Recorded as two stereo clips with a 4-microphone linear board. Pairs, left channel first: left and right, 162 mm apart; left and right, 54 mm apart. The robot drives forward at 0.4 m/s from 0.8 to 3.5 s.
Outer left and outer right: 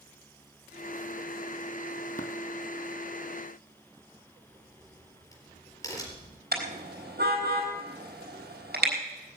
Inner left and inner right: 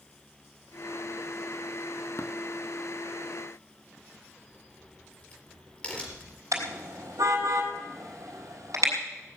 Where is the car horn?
80° right, 4 m.